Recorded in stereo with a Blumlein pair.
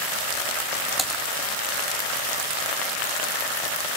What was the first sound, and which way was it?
Typing on a keyboard, 10° right.